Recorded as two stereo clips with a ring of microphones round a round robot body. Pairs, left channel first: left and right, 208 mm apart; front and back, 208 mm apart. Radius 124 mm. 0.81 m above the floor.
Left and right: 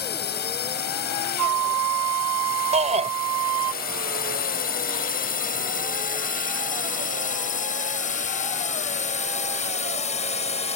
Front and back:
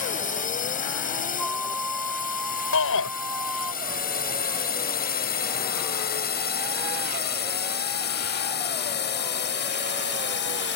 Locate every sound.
0.0 s a drone: 50° left; by 10.8 s 30° left
1.4 s a flute: 90° right
2.7 s a shout: 30° right